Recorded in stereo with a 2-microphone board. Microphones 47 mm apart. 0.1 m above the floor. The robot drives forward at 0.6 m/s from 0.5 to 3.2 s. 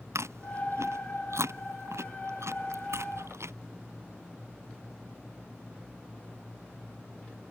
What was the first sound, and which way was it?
Chewing, 80° right.